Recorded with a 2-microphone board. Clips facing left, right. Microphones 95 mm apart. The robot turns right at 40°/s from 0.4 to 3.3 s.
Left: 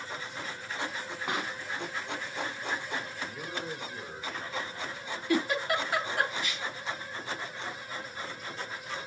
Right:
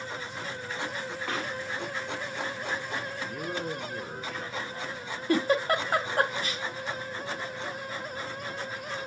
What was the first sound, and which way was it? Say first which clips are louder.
A pop: even; 15° left (ahead or behind).